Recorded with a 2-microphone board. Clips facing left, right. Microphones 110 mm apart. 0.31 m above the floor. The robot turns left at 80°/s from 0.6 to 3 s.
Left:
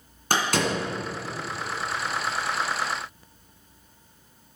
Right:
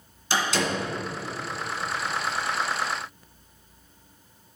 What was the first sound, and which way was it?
A door slam, 55° left (ahead or behind).